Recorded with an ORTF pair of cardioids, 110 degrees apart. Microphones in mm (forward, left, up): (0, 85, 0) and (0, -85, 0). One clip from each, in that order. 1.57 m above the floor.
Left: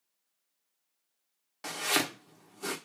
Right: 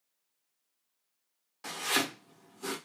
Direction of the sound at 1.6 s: 25° left.